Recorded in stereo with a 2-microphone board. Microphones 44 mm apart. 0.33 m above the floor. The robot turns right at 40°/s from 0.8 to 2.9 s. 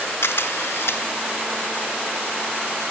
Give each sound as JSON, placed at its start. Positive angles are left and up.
{"t": 0.2, "sound": "a camera shutter", "side_deg": 70, "distance_m": 1.0}